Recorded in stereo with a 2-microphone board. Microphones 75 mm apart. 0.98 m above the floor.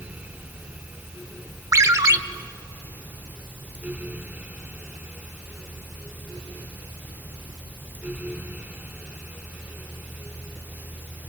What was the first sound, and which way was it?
A ringtone, 50° right (ahead or behind).